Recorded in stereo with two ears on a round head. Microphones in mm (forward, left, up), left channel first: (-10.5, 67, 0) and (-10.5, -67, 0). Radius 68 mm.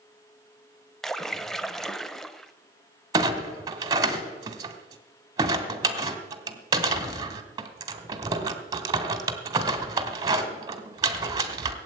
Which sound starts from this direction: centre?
A splash, at 1.0 s.